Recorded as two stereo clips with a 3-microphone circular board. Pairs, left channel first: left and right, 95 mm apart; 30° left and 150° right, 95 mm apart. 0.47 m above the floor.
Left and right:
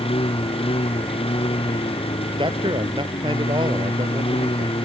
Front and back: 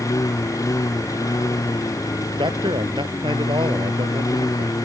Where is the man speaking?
120° right.